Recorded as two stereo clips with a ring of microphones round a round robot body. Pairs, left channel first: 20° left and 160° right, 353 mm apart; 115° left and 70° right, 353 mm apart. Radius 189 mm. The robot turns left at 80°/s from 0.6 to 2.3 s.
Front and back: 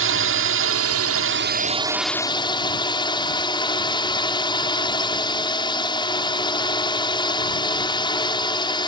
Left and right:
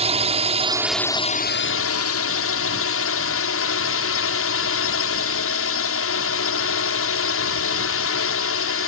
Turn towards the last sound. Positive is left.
turn(degrees=95)